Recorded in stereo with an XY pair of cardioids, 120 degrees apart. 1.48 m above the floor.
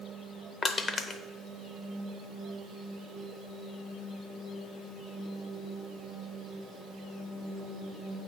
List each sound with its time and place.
0.6 s crushing: 35° left, 0.6 m